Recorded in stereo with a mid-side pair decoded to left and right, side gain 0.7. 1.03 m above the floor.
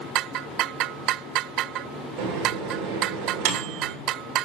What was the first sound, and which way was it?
A microwave, 65° right.